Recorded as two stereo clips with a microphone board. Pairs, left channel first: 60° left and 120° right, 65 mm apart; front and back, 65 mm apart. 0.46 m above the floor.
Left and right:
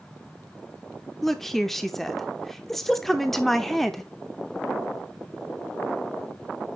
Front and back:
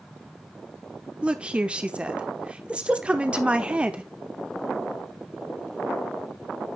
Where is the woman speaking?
140° left, 0.8 m.